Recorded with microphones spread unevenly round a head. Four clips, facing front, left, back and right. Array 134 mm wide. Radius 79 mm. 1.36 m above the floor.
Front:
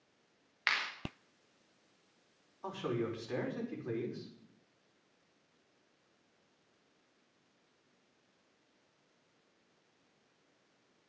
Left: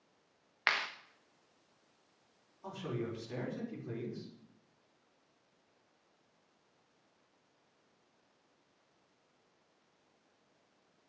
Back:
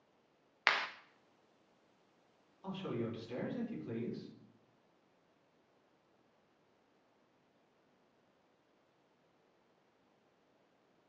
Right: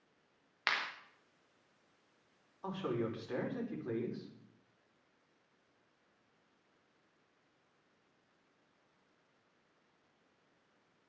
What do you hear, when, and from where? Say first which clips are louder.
0.7 s a clap: left 2 dB, back 2 dB; 155° left, 1.1 m
2.6 s a man speaking: right 3 dB, front 4 dB; 35° right, 5 m